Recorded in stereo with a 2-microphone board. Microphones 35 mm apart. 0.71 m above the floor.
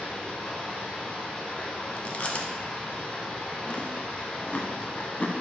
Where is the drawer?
I don't hear a drawer.